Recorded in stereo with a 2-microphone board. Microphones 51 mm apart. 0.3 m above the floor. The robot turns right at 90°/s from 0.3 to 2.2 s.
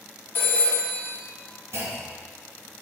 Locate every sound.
0.3 s a phone ringing: 130° left, 0.9 m; by 1.1 s 160° right, 0.9 m
1.7 s a clunk: 110° right, 1.8 m; by 2.3 s 70° right, 1.8 m